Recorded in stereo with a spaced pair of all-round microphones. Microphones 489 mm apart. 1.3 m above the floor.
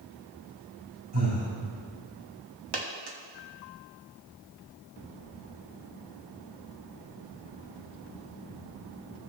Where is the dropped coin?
55° right (ahead or behind), 1.2 m.